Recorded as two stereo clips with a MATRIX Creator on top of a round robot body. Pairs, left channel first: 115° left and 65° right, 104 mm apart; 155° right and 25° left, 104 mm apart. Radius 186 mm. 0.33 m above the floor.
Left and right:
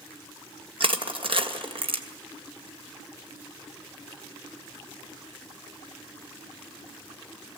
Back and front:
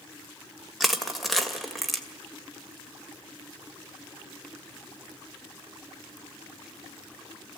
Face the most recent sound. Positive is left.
turn(degrees=-65)